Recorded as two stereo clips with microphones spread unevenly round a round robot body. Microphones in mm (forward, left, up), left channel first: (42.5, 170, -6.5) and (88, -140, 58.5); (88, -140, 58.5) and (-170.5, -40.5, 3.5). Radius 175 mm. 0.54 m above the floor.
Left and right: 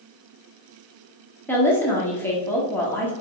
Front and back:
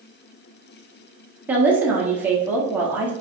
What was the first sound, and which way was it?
A woman speaking, 125° left.